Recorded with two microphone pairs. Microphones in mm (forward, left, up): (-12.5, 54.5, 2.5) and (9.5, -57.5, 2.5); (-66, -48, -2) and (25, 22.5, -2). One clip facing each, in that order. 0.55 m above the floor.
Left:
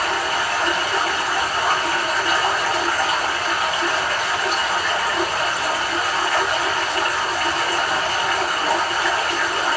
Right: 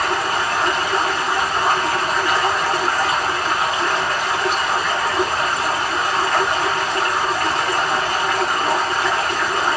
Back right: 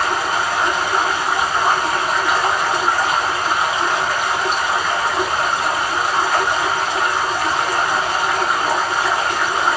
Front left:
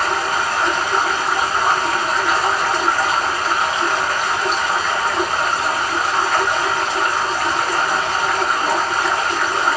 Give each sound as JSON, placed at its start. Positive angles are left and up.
{"t": 0.0, "sound": "running water", "azimuth_deg": -65, "distance_m": 1.6}